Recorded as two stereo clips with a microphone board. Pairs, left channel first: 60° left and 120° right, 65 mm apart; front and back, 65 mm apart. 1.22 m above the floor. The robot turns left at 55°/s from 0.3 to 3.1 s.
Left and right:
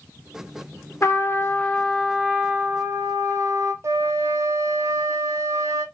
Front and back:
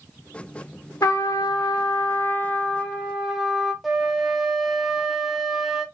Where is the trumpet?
20° left, 1.0 m; by 3.7 s 95° right, 1.0 m.